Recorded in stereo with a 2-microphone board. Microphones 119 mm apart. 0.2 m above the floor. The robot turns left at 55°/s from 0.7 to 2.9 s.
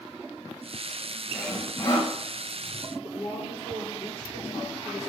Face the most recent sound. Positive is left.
turn(degrees=55)  # may be behind; listen again after turning